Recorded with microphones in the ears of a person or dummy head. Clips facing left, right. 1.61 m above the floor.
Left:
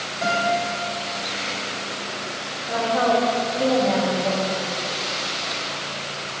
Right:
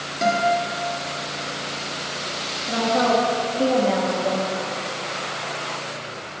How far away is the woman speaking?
About 2.5 m.